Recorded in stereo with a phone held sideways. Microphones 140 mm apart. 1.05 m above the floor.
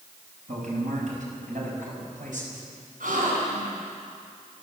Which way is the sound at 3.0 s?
75° right (ahead or behind).